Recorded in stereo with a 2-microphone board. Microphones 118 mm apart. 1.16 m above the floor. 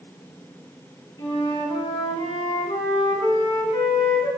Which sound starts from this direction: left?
A flute, at 1.2 s.